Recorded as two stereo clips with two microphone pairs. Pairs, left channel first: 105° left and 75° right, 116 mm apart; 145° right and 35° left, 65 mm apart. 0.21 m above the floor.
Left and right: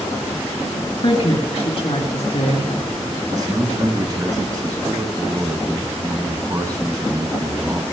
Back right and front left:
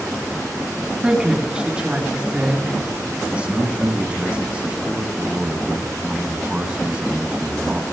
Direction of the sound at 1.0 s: 105° left.